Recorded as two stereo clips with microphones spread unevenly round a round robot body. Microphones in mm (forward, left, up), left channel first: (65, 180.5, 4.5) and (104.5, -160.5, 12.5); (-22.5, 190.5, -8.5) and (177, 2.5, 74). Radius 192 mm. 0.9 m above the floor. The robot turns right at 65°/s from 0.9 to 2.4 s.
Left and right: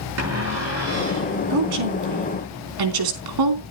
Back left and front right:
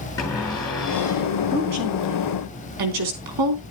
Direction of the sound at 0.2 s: 140° right.